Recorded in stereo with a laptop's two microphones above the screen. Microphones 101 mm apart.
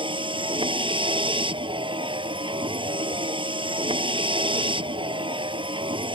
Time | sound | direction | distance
0.0 | a vehicle | 55° right (ahead or behind) | ?